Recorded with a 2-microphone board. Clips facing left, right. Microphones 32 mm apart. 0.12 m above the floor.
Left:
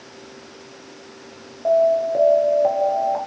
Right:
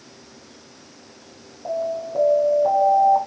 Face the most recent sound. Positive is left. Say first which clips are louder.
# left 9 dB
turn(degrees=35)  # may be behind; listen again after turning